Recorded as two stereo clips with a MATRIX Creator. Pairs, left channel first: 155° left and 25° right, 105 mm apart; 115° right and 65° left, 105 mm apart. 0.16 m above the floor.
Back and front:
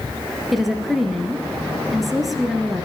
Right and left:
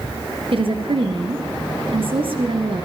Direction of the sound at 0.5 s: 65° left.